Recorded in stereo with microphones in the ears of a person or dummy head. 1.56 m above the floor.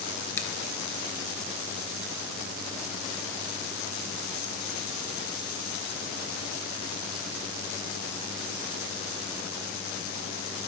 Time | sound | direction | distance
0.4 | a finger snap | 15° left (ahead or behind) | 1.0 m